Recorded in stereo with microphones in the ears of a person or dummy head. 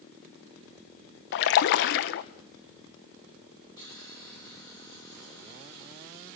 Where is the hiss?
25° left (ahead or behind), 8 m.